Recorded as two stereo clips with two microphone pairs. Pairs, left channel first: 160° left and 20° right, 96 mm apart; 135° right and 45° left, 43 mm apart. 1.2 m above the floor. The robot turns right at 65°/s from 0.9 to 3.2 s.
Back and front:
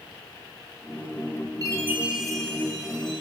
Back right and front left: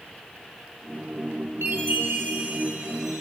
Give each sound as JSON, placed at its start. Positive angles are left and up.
{"t": 1.6, "sound": "a chime", "azimuth_deg": 30, "distance_m": 3.0}